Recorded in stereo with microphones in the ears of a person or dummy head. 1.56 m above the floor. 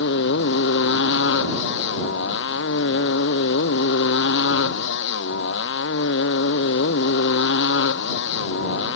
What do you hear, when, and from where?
0.0 s a motorcycle: 65° left (ahead or behind)